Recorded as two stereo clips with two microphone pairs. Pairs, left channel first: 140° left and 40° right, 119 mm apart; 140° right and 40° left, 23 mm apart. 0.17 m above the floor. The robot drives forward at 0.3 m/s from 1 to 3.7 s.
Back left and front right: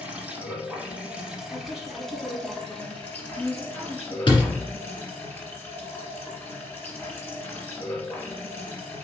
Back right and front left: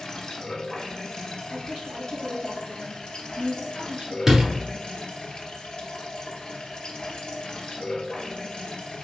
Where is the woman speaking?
45° left, 3 m; by 4.2 s 55° left, 2.5 m.